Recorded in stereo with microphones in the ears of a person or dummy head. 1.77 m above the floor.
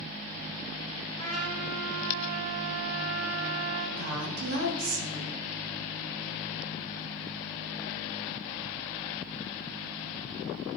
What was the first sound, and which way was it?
A trumpet, 40° right (ahead or behind).